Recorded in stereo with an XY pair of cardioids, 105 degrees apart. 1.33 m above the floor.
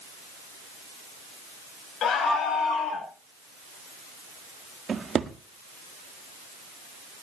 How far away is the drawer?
About 1.6 m.